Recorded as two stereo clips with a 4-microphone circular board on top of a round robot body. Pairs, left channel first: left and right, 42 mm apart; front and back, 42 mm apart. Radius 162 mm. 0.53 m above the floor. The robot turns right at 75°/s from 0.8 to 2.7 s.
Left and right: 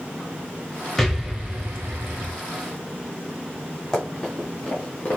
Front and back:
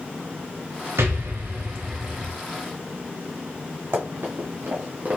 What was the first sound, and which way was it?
An explosion, 175° left.